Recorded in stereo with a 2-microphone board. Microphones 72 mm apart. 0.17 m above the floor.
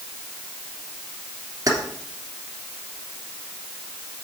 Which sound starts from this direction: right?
Keys jangling, at 1.7 s.